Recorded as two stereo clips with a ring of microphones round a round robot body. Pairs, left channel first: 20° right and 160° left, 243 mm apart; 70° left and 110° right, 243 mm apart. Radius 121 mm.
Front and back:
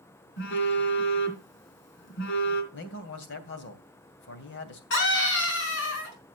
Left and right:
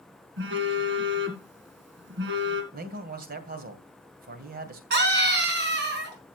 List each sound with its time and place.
0.4 s a phone buzzing: 65° right, 2.5 m
2.7 s a man speaking: 60° right, 2.5 m
4.9 s a scream: 65° right, 4.5 m